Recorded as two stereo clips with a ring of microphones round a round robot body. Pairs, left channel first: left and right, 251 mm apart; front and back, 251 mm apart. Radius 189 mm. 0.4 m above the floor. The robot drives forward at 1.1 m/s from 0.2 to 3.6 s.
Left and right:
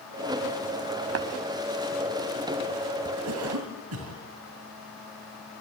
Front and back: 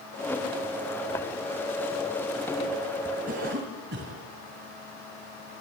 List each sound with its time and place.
1.1 s tapping: 80° right, 0.7 m; by 1.3 s 95° right, 0.7 m
3.3 s a cough: 120° right, 2.5 m; by 4.2 s 125° right, 3 m